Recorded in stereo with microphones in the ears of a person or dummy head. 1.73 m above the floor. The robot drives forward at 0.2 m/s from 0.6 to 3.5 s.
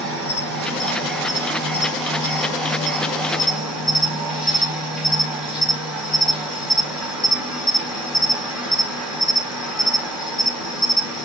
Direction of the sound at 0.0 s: 5° left (ahead or behind).